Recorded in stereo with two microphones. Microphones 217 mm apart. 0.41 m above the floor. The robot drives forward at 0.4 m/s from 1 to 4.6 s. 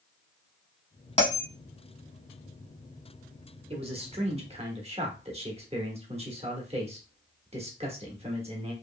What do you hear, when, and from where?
1.2 s a bell: 30° left (ahead or behind), 0.8 m; by 1.5 s 35° left (ahead or behind), 0.7 m
3.7 s a man speaking: 25° right (ahead or behind), 0.9 m; by 8.7 s 30° right (ahead or behind), 0.8 m